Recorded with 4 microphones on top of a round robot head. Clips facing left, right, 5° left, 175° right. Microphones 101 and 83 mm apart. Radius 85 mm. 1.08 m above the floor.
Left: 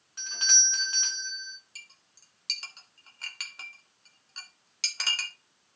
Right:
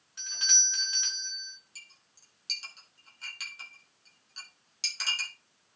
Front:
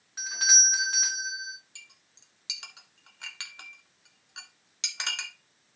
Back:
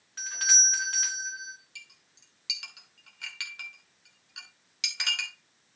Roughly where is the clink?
Ahead left.